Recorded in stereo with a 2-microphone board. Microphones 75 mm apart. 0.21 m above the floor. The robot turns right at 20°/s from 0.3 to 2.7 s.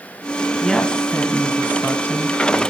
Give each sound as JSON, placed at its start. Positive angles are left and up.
{"t": 0.6, "sound": "a woman speaking", "azimuth_deg": 15, "distance_m": 1.9}